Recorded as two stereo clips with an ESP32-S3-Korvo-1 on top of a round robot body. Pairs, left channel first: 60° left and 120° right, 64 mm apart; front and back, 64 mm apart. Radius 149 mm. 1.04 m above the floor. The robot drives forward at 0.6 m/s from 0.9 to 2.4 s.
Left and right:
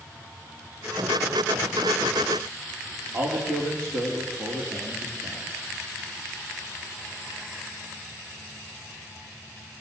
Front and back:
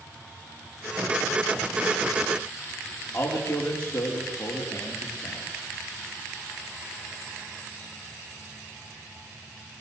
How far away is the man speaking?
About 3.5 m.